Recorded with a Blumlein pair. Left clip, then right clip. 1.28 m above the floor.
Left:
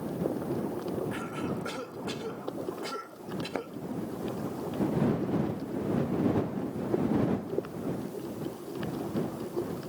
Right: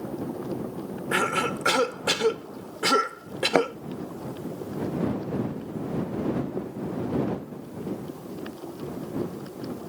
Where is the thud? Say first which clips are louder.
Right 16 dB; 55° right.